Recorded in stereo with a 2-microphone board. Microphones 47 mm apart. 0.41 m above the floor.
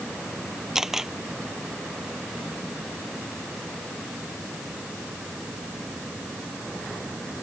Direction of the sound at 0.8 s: 5° right (ahead or behind).